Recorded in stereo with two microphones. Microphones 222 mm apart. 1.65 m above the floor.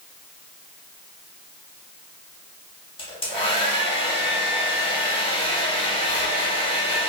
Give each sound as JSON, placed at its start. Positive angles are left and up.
{"t": 3.0, "sound": "a hair dryer", "side_deg": 25, "distance_m": 0.8}